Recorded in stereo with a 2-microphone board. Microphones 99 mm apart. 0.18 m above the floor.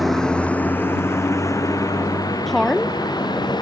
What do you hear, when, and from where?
0.0 s a vehicle: centre (ahead or behind); by 3.6 s 50° left (ahead or behind)
2.5 s a woman speaking: 5° left (ahead or behind)